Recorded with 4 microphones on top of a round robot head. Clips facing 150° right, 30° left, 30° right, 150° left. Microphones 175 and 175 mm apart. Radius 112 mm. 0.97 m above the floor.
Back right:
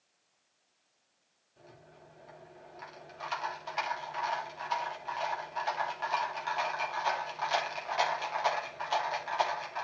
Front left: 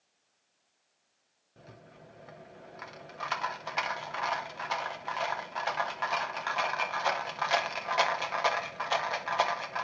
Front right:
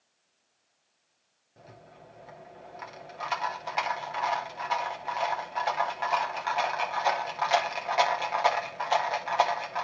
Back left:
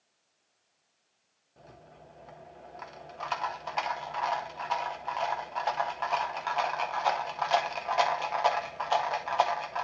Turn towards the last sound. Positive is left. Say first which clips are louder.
# front left 2 dB, front right 1 dB
turn(degrees=50)